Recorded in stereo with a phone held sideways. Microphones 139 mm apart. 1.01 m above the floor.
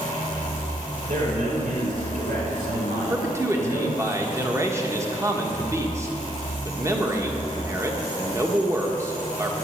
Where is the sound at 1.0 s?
85° right, 4.5 m.